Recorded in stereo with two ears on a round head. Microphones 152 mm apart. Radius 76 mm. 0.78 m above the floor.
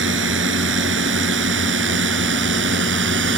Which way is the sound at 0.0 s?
85° right.